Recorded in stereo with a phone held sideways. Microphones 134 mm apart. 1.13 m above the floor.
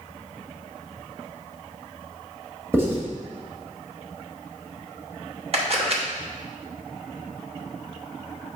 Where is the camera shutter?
50° right (ahead or behind), 1.1 m.